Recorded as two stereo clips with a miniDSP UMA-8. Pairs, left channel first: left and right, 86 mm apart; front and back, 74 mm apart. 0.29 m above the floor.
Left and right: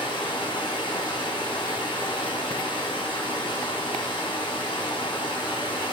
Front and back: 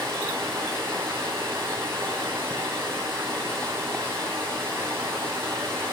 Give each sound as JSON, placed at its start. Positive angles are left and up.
{"t": 0.0, "sound": "running water", "azimuth_deg": 125, "distance_m": 5.0}